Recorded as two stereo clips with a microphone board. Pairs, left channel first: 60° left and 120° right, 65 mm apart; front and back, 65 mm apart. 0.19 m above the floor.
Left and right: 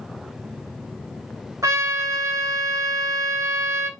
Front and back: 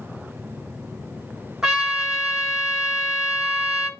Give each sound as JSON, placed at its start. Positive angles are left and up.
{"t": 1.6, "sound": "a trumpet", "azimuth_deg": -100, "distance_m": 1.2}